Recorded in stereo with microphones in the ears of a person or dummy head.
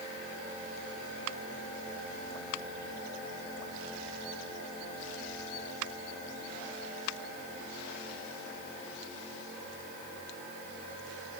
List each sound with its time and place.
Only background noise.